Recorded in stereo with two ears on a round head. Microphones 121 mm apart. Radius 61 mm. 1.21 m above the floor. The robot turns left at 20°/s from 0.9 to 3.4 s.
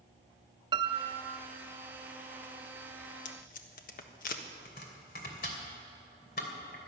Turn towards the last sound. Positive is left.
turn(degrees=70)  # may be behind; listen again after turning